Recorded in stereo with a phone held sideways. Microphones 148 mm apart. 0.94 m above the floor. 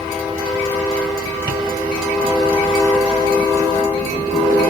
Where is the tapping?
25° right (ahead or behind), 1.3 m.